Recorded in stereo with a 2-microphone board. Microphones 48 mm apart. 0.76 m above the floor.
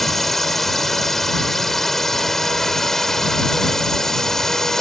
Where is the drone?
5° left (ahead or behind); by 4.8 s 10° left (ahead or behind).